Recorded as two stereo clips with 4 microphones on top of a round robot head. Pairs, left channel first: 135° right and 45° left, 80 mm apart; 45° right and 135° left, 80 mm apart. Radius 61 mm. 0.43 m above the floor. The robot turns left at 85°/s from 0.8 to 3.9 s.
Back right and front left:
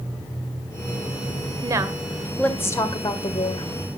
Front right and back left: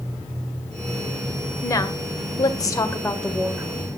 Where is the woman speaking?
10° left, 2 m; by 3.7 s 165° right, 2 m.